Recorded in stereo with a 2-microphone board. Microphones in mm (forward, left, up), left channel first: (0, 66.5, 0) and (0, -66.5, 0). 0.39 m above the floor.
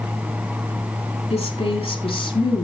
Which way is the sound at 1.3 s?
55° left (ahead or behind).